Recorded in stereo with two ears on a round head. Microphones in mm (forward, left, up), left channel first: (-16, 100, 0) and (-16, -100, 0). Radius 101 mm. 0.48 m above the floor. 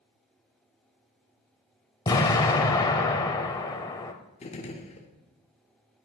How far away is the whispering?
I don't hear whispering.